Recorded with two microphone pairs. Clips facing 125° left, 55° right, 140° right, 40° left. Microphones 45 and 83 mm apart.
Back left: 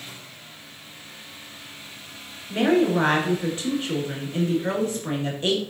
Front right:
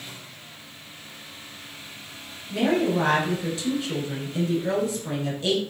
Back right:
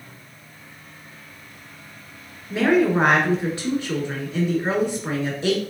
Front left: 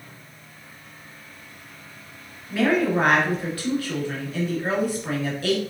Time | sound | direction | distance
2.5 | a woman speaking | 165° left | 1.3 m